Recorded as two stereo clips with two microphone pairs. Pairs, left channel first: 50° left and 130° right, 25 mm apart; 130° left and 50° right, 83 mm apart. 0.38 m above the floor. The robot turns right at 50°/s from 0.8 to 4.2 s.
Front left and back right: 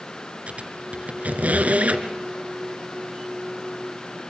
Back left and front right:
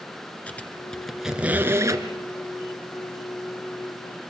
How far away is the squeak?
About 1.8 m.